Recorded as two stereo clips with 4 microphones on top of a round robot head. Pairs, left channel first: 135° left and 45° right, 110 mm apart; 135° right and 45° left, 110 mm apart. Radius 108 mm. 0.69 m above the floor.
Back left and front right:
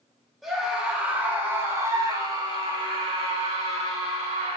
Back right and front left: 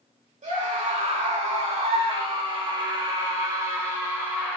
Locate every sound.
0.4 s a scream: 45° left, 2.5 m; by 4.6 s 30° right, 3 m